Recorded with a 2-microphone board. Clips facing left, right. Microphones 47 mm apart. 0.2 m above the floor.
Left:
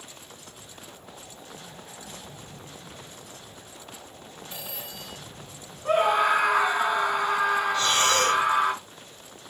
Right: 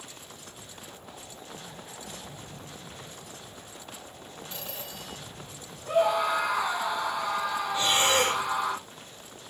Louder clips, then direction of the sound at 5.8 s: Left 3 dB; 60° left (ahead or behind).